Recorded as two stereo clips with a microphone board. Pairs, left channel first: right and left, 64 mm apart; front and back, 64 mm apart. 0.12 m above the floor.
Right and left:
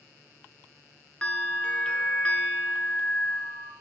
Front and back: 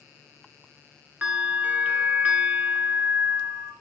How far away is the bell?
About 0.9 m.